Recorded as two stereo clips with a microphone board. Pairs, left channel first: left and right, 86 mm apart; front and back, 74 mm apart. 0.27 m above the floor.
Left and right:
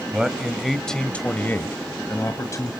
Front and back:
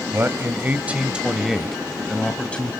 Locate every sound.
0.1 s a man speaking: 165° right, 1.5 m; by 2.7 s 65° left, 1.7 m